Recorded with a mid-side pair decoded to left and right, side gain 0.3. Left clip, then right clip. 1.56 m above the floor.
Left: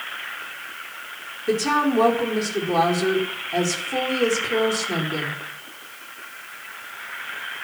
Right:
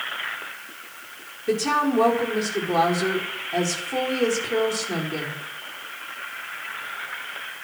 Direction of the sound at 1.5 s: 10° left.